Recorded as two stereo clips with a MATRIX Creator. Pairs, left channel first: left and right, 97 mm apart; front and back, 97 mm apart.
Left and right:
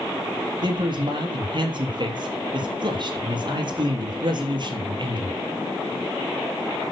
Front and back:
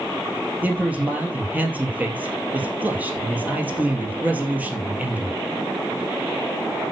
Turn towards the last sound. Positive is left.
turn(degrees=-110)